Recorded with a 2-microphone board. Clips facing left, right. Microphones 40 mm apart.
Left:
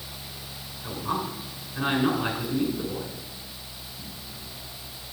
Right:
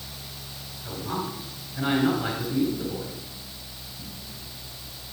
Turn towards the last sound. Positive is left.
turn(degrees=45)  # may be behind; listen again after turning